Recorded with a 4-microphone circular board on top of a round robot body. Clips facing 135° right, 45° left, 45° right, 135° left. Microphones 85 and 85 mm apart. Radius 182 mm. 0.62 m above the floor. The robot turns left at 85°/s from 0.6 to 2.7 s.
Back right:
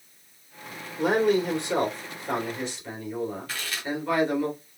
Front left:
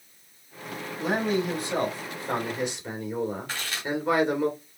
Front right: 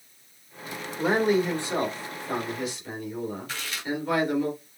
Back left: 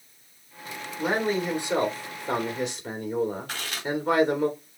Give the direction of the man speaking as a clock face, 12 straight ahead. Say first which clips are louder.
Back right 4 dB, front right 3 dB; 3 o'clock.